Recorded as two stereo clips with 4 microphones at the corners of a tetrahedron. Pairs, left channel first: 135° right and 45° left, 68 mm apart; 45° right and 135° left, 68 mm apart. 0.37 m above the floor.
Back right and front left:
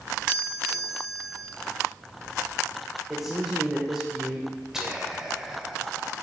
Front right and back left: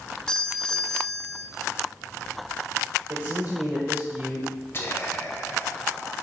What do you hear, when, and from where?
0.3 s a doorbell: 5° left, 1.7 m
3.1 s a man speaking: 125° left, 1.0 m
4.7 s whispering: 30° right, 1.6 m